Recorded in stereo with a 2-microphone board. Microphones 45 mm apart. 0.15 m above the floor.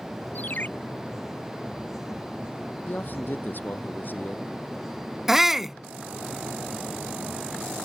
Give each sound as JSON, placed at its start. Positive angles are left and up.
{"t": 0.3, "sound": "a ringtone", "side_deg": 40}
{"t": 2.9, "sound": "a man speaking", "side_deg": 45}
{"t": 5.3, "sound": "a shout", "side_deg": -5}